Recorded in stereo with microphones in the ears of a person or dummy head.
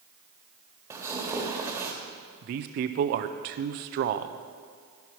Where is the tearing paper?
5° right (ahead or behind), 1.5 m.